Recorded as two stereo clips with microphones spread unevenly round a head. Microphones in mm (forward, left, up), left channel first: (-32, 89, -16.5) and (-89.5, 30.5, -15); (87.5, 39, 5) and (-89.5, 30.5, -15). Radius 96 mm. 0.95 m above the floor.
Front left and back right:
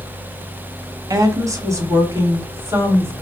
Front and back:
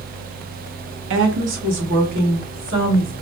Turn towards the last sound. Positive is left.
turn(degrees=165)